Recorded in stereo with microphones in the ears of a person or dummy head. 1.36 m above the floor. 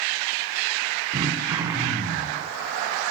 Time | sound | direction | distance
1.1 | throat clearing | 15° right (ahead or behind) | 2.5 m